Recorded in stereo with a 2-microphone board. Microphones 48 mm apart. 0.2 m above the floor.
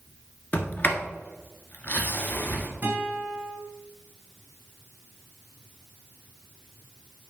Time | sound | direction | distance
0.5 | a sliding door | 45° left (ahead or behind) | 1.0 m
2.8 | a guitar | 40° right (ahead or behind) | 2 m